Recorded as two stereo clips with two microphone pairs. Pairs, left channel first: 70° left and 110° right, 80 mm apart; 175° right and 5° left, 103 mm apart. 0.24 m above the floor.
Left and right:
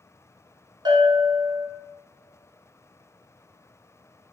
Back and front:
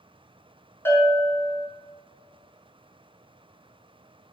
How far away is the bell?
About 0.6 m.